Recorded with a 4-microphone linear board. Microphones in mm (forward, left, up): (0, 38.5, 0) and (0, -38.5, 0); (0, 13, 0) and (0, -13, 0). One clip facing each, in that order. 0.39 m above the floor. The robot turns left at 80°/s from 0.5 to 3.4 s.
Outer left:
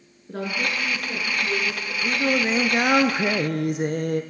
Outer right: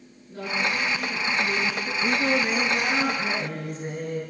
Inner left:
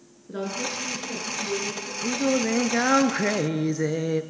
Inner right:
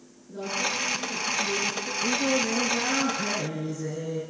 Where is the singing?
170° right, 1.7 m; by 4.2 s 80° left, 1.7 m.